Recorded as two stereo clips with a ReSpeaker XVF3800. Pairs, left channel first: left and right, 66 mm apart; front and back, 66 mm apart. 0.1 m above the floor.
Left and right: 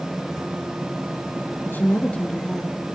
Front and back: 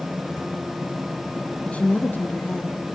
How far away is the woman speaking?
About 2.0 m.